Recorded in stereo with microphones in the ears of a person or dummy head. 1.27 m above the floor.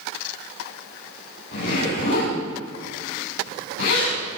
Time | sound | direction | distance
1.5 | a zipper | 65° left (ahead or behind) | 9.5 m